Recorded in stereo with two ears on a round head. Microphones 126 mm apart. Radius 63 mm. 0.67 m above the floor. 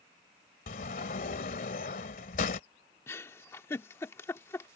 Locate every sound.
0.7 s a sliding door: 55° left (ahead or behind)
3.1 s a giggle: 15° left (ahead or behind)